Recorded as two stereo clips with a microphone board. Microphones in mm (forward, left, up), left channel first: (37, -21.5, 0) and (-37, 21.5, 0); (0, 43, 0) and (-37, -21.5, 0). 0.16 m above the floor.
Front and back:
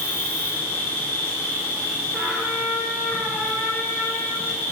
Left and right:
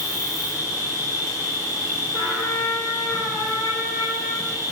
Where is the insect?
35° left, 0.9 m.